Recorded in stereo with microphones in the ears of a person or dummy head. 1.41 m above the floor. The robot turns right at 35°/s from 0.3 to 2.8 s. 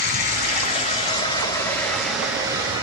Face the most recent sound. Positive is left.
turn(degrees=-155)